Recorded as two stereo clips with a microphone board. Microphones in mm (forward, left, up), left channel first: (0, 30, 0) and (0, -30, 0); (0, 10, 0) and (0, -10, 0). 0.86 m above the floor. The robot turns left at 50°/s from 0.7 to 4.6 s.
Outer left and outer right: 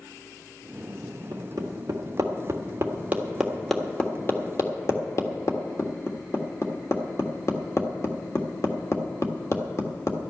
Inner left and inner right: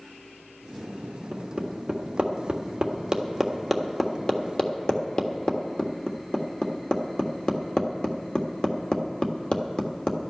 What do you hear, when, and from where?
1.3 s hammering: 65° right (ahead or behind), 1.5 m; by 10.2 s 45° left (ahead or behind), 1.5 m